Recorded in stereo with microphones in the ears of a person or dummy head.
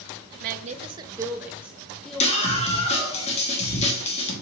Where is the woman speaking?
55° right (ahead or behind), 0.6 m; by 3.2 s 10° left (ahead or behind), 2 m.